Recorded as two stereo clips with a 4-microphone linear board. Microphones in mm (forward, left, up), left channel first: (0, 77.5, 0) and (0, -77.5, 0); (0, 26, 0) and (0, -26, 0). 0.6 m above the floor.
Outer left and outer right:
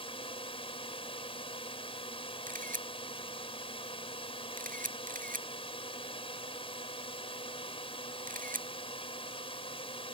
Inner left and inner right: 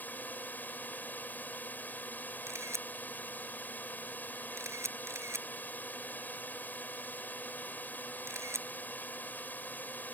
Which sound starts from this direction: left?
A drone, at 0.0 s.